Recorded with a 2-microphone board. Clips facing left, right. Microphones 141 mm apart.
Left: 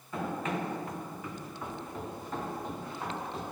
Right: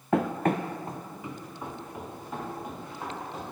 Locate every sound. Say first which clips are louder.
0.1 s running footsteps: right 8 dB; 80° right, 0.5 m; by 3.4 s 5° right (ahead or behind), 3.5 m